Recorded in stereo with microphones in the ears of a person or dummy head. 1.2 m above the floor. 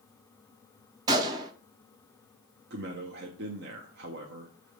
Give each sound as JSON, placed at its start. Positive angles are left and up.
{"t": 1.1, "sound": "a gunshot", "side_deg": -20, "distance_m": 0.5}
{"t": 2.7, "sound": "a man speaking", "side_deg": -50, "distance_m": 0.8}